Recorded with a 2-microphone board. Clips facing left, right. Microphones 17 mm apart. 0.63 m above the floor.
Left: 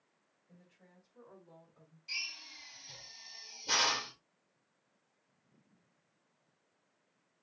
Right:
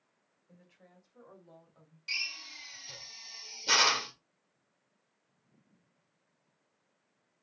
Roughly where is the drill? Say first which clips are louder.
Right 4 dB; right.